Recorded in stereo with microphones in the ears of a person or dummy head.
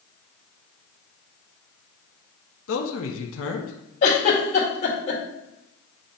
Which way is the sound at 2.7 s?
80° left.